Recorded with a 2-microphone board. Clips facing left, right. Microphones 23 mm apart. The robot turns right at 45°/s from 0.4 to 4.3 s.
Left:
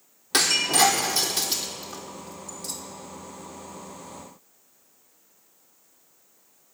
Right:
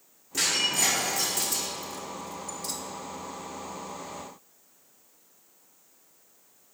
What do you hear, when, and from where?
0.3 s breaking glass: 75° left (ahead or behind), 1.5 m; by 2.8 s 5° right (ahead or behind), 1.5 m